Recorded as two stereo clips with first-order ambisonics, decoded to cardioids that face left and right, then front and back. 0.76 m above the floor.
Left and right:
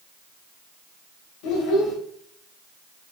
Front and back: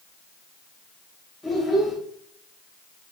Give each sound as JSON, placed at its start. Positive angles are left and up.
{"t": 1.4, "sound": "a child speaking", "azimuth_deg": 85, "distance_m": 1.8}